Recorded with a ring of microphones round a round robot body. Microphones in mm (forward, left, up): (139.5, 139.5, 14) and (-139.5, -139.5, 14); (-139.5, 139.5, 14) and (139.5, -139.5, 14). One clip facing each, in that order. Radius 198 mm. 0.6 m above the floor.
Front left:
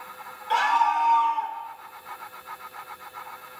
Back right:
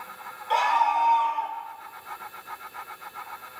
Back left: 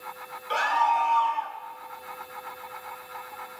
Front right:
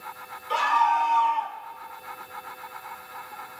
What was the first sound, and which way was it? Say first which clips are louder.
A scream: even, front right 1 dB; 40° left.